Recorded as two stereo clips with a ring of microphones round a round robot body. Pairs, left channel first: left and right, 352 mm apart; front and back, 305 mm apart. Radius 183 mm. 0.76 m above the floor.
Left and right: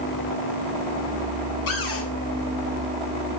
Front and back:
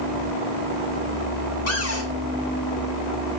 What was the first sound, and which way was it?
A cupboard door, 40° left.